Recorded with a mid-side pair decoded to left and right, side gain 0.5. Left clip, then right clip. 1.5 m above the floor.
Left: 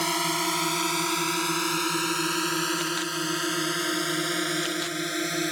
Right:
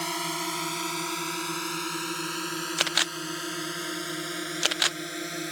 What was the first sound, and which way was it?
A drone, 30° left.